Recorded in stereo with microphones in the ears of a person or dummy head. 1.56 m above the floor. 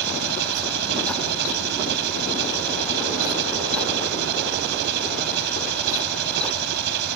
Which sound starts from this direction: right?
An engine running, at 0.0 s.